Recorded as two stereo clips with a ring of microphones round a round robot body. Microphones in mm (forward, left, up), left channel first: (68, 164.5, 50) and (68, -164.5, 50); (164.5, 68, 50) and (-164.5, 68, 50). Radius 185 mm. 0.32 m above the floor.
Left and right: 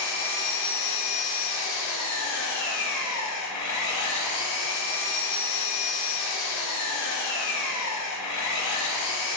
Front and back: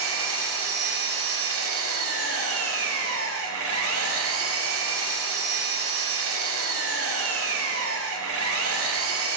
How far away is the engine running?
About 0.8 m.